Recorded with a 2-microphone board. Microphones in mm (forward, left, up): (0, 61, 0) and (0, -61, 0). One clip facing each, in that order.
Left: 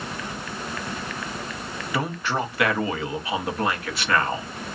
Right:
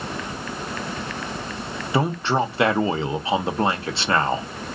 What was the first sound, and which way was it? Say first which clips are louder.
A man speaking: right 5 dB; 25° right (ahead or behind).